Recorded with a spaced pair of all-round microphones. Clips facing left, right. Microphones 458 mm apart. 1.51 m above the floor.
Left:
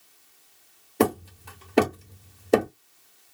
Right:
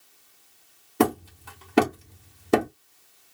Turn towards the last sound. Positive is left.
turn(degrees=-20)  # may be behind; listen again after turning